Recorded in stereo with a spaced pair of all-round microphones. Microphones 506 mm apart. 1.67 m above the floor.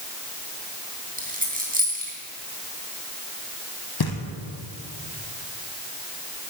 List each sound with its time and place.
1.2 s a dropped coin: 15° right (ahead or behind), 3 m
4.0 s knocking: 45° left (ahead or behind), 1.5 m